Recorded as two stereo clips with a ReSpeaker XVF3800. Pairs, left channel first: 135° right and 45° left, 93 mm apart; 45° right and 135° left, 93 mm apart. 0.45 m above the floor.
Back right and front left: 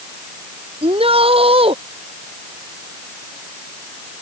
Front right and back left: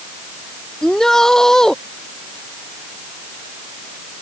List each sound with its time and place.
0.8 s a shout: 40° left